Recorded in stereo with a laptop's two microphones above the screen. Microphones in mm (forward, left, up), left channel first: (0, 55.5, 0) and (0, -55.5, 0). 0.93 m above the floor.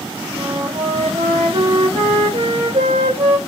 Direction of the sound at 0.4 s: 70° right (ahead or behind).